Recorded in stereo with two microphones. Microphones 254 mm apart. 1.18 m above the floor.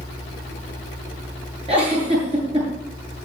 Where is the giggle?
25° right (ahead or behind), 7.5 m.